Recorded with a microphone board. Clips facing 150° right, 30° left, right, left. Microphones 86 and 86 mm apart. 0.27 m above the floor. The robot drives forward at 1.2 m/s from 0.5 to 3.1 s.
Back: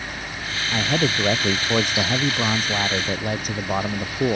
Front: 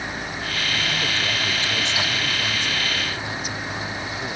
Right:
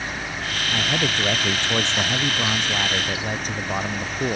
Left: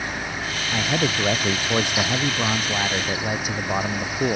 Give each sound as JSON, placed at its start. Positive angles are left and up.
{"t": 0.7, "sound": "a man speaking", "azimuth_deg": 170}